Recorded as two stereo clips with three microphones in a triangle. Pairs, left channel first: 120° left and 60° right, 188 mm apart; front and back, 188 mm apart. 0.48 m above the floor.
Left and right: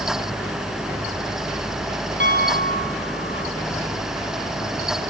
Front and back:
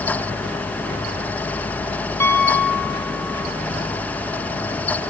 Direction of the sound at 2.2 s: 75° right.